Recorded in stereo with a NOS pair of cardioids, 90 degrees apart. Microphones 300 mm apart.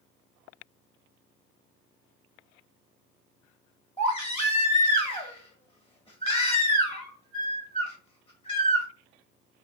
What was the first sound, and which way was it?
A baby crying, 20° left.